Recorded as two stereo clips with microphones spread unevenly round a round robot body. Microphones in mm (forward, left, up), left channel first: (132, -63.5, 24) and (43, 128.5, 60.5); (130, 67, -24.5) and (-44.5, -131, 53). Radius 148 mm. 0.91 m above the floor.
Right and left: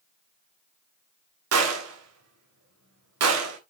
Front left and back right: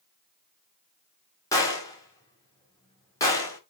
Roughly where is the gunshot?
Behind left.